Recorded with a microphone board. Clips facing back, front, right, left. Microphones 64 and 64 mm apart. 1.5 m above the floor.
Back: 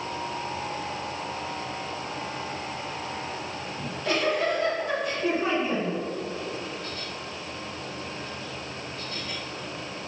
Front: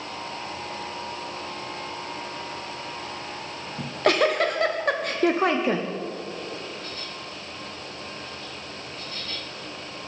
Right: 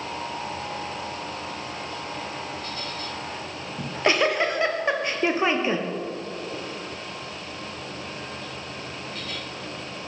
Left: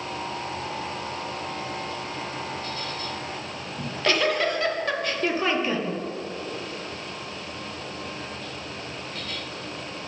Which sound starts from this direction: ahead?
A giggle, at 3.8 s.